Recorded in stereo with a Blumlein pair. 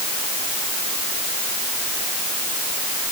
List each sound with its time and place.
Only background noise.